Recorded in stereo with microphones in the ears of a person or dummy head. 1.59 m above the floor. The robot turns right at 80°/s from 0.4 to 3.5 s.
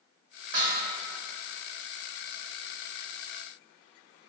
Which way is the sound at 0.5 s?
65° right (ahead or behind).